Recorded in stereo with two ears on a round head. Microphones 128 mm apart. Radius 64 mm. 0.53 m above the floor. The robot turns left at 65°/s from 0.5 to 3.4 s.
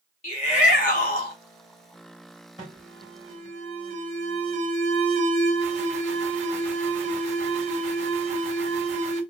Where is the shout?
125° left, 1.9 m; by 1.4 s 70° left, 1.9 m.